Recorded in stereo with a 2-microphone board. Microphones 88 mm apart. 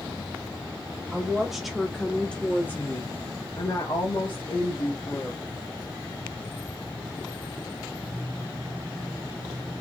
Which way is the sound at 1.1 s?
10° right (ahead or behind).